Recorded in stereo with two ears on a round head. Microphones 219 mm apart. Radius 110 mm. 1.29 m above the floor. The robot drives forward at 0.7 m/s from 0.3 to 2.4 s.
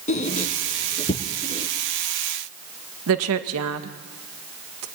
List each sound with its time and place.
0.1 s a squeak: 30° left (ahead or behind), 1.5 m; by 1.7 s 20° left (ahead or behind), 2 m
3.1 s a woman speaking: 65° right (ahead or behind), 1.8 m